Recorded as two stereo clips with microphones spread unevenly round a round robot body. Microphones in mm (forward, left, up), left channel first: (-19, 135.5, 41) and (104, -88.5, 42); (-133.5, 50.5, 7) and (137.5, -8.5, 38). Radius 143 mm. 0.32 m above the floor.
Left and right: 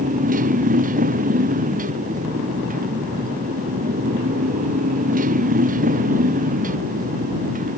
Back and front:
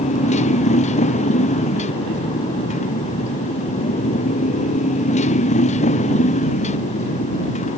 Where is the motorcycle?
125° right.